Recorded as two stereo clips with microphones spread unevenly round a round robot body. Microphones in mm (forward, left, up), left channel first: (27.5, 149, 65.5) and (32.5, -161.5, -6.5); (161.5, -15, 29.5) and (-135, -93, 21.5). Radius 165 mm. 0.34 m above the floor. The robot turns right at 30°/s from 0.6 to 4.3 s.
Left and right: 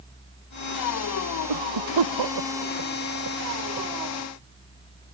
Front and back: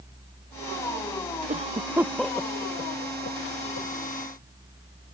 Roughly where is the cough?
Right.